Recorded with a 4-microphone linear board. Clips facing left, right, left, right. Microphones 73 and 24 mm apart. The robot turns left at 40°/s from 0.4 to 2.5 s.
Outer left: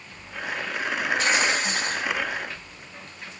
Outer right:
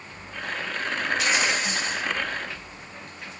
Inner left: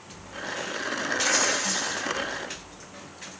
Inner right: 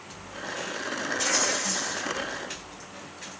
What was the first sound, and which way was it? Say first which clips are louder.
Tearing paper: outer left 2 dB, inner left 2 dB; 120° left.